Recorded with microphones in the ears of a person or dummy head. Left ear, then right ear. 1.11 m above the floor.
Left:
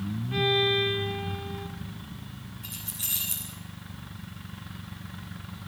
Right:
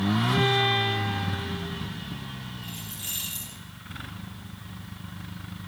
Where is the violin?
Centre (ahead or behind), 1.0 m.